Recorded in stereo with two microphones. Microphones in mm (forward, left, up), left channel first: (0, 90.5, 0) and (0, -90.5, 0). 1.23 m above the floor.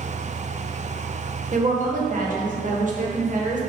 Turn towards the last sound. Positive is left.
turn(degrees=-45)  # may be behind; listen again after turning